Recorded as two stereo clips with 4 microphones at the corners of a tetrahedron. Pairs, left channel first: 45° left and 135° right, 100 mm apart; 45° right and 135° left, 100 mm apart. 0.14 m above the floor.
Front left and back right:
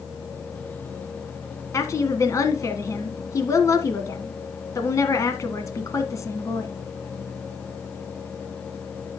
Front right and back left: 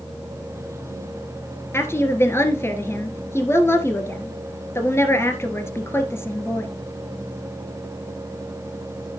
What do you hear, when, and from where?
1.7 s a woman speaking: 5° left, 1.6 m